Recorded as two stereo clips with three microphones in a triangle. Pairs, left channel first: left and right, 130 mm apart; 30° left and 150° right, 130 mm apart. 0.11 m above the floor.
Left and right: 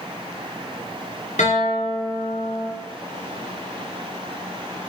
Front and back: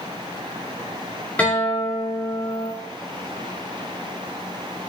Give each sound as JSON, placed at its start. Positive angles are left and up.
{"t": 1.4, "sound": "a guitar", "azimuth_deg": 105, "distance_m": 6.0}